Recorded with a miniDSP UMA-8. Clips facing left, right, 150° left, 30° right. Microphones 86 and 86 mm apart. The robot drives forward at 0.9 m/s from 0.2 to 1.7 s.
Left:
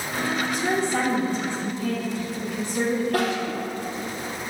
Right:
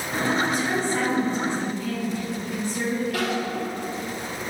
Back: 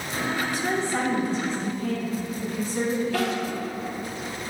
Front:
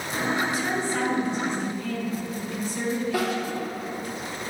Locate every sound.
0.4 s a woman speaking: 80° left, 2 m; by 3.5 s 115° left, 2.5 m
3.1 s crying: 45° left, 2.5 m